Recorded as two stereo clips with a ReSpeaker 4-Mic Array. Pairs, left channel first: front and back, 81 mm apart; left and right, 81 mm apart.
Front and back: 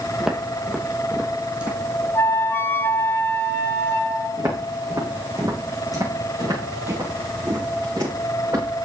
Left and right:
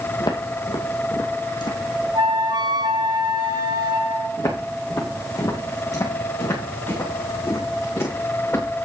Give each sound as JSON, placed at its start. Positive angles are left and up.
{"t": 0.2, "sound": "footsteps", "azimuth_deg": 100, "distance_m": 2.0}
{"t": 2.1, "sound": "a flute", "azimuth_deg": -65, "distance_m": 1.2}
{"t": 4.4, "sound": "footsteps", "azimuth_deg": 130, "distance_m": 5.0}